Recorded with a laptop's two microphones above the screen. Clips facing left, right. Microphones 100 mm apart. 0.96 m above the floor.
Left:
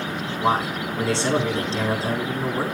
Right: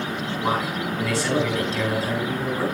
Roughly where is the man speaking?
Left.